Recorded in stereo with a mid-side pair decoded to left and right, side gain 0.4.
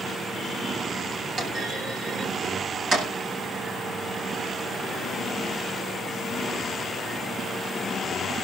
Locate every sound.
1.4 s a clunk: 65° right, 8 m